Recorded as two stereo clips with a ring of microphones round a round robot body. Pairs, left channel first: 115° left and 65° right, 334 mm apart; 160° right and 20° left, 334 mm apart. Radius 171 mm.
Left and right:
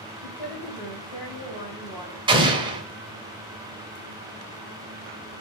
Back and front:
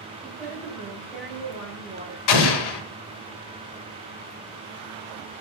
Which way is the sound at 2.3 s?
145° right.